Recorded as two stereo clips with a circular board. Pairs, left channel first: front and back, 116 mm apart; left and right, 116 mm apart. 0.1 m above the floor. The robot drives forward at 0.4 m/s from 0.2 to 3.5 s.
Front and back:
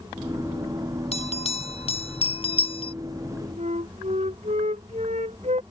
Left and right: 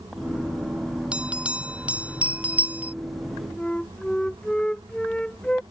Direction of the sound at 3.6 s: 170° left.